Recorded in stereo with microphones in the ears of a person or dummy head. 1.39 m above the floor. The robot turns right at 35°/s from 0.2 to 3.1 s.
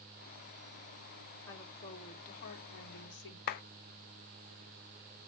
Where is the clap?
40° left (ahead or behind), 0.5 m.